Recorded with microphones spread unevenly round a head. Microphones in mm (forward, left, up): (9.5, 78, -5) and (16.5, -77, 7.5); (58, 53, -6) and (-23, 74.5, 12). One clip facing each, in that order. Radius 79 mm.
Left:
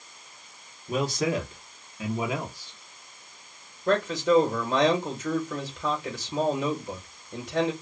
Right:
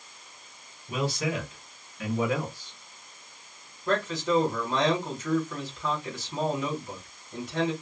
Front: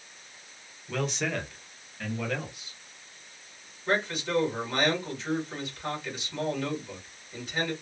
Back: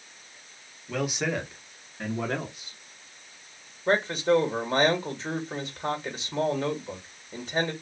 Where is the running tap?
I don't hear a running tap.